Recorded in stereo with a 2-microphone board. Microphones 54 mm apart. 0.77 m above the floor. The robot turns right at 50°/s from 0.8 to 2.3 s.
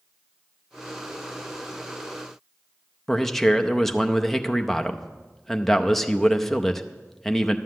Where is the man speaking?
Centre (ahead or behind), 0.6 m.